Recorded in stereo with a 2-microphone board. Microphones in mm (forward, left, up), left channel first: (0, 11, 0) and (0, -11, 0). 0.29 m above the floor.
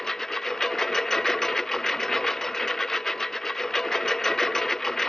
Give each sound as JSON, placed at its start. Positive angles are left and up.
{"t": 0.0, "sound": "a lawn mower", "side_deg": 20}